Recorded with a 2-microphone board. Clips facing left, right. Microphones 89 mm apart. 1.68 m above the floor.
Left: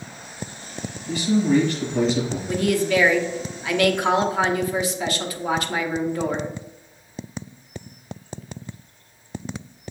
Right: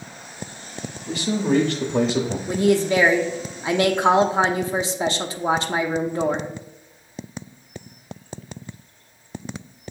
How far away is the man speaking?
About 0.7 m.